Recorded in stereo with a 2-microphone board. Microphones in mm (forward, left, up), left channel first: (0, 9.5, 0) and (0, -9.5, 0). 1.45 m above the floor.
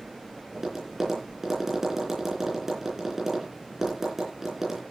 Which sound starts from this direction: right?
Tapping, at 0.5 s.